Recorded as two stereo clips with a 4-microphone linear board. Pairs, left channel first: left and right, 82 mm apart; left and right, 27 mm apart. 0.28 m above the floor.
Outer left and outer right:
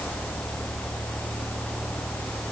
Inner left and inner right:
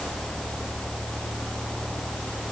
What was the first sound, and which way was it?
Only background noise.